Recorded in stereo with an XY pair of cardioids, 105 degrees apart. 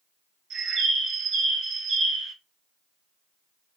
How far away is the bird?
About 1.8 m.